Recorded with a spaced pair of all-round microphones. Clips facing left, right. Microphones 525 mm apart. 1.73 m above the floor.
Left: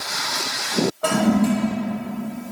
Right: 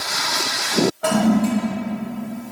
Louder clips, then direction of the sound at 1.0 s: Left 1 dB; 10° right (ahead or behind).